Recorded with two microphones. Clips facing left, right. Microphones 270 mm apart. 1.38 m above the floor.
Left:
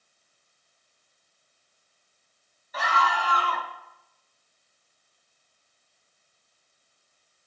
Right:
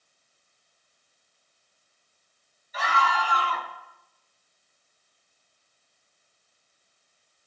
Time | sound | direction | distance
2.7 | a scream | 65° left (ahead or behind) | 3.5 m